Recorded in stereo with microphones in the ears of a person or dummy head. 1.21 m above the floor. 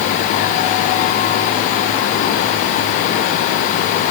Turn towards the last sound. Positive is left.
No sound to turn to.